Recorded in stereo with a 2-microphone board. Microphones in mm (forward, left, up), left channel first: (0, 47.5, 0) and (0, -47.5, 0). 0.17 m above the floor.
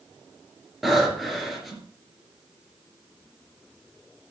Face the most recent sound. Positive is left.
turn(degrees=0)  # may be behind; listen again after turning